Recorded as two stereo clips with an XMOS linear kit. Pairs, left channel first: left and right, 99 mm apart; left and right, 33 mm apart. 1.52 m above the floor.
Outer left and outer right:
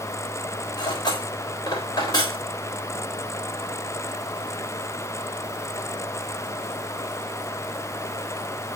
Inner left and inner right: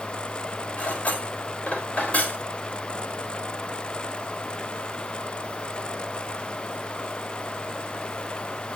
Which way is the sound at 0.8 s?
45° left (ahead or behind).